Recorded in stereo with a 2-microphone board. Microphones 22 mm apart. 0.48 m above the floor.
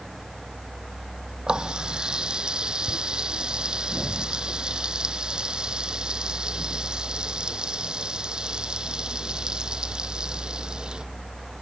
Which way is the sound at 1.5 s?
35° right (ahead or behind).